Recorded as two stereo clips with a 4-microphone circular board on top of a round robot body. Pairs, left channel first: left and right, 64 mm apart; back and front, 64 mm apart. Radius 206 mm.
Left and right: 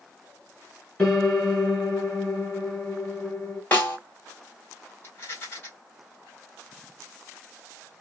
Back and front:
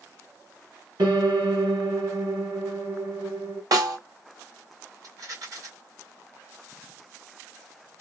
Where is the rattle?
30° left, 2.0 m.